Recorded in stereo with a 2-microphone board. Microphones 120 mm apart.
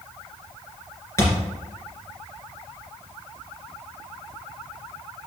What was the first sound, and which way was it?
A thud, 25° left (ahead or behind).